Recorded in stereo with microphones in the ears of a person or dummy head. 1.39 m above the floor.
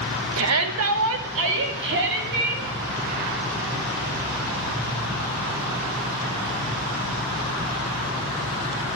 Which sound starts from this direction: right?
A shout, at 0.4 s.